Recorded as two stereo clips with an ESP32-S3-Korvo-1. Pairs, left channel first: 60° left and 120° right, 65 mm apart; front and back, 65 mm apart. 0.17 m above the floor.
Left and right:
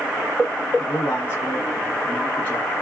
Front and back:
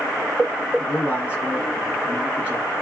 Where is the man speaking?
115° left, 1.6 m.